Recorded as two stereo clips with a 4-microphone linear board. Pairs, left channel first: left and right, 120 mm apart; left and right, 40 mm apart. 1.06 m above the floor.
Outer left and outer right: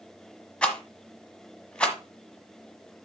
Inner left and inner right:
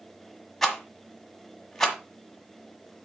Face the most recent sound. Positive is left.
turn(degrees=10)  # may be behind; listen again after turning